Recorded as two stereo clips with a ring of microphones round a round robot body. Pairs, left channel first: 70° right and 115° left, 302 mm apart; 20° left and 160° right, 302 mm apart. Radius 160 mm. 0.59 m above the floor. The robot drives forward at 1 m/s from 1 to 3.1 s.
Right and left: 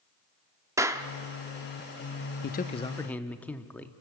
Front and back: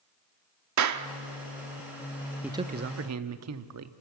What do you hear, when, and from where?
0.8 s a clap: 170° right, 1.2 m
2.4 s a man speaking: 70° right, 0.7 m; by 3.9 s 150° right, 0.9 m